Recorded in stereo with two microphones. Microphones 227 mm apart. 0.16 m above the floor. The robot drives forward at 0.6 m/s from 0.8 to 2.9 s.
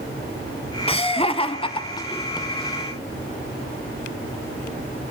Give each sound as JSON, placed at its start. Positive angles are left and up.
{"t": 0.9, "sound": "laughter", "side_deg": 25, "distance_m": 1.1}